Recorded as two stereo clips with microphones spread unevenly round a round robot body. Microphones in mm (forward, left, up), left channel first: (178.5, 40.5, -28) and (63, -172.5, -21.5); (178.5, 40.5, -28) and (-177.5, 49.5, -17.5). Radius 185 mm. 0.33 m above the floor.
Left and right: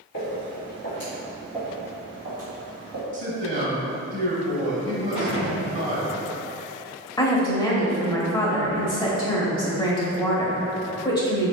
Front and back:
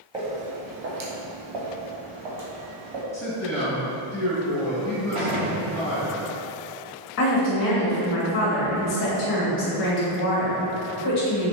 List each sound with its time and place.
0.1 s footsteps: 100° left, 1.3 m; by 3.0 s 155° right, 1.9 m
3.1 s a man speaking: 80° right, 1.3 m
5.2 s a gunshot: 145° right, 1.2 m
7.2 s a woman speaking: 10° left, 1.0 m